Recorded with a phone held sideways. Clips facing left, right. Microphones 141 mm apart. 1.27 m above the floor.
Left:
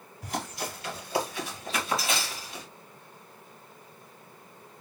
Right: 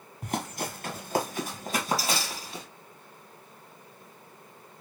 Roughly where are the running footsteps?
Right.